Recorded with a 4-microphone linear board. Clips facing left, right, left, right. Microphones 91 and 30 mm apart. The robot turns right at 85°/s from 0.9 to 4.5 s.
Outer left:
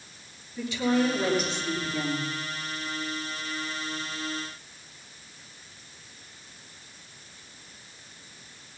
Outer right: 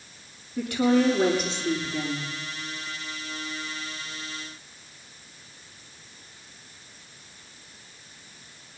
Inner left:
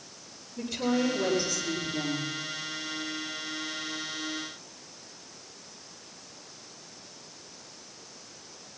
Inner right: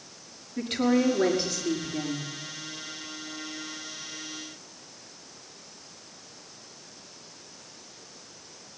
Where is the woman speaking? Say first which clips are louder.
Outer right 4 dB, inner right 4 dB; 85° right, 5.5 m; by 2.3 s 35° left, 5.5 m.